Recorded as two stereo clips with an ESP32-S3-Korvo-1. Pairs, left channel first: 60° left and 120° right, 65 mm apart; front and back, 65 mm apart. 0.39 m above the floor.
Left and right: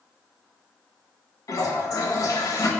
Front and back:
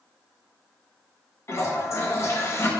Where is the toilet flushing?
40° left, 0.7 m.